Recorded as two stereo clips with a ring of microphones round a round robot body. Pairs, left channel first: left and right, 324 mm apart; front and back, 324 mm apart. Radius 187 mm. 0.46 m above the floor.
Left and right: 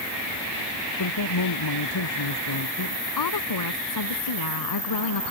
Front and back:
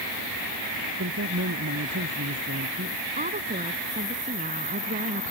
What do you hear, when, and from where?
1.0 s a man speaking: 120° left
3.2 s a woman speaking: 110° left